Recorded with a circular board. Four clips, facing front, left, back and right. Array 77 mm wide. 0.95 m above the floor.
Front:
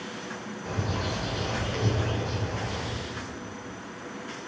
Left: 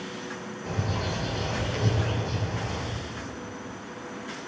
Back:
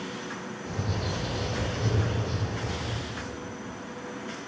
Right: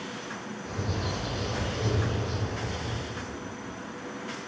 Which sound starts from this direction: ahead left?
A bird, at 0.7 s.